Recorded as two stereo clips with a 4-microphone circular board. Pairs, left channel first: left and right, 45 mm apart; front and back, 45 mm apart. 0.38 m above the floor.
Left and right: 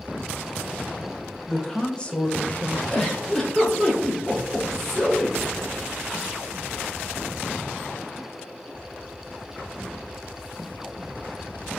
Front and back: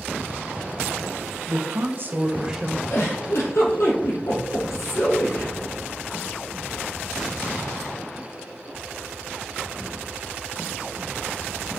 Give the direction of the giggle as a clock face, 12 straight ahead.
12 o'clock.